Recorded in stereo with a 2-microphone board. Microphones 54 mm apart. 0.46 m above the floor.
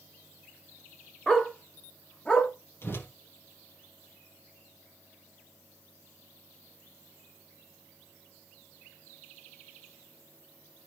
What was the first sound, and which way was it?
A dog barking, 10° left (ahead or behind).